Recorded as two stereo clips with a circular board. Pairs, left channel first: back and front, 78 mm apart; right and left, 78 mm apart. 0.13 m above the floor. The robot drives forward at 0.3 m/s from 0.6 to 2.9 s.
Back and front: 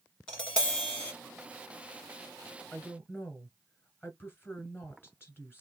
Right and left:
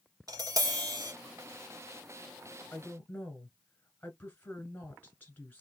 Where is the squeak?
No squeak in this recording.